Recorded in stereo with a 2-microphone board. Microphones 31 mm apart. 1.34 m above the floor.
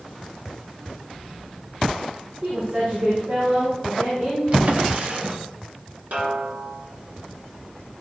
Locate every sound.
2.4 s a woman speaking: 75° right (ahead or behind), 5 m; by 4.4 s 85° right, 7 m
4.5 s a drawer: 45° right (ahead or behind), 1.3 m
6.1 s a snare drum: 60° right (ahead or behind), 2.5 m